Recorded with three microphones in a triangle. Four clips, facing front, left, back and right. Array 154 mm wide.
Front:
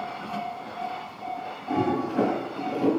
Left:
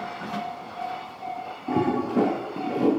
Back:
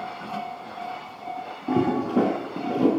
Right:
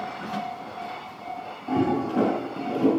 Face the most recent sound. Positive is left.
turn(degrees=160)